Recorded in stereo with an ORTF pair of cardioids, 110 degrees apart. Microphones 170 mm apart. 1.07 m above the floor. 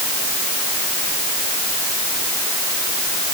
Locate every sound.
Only background noise.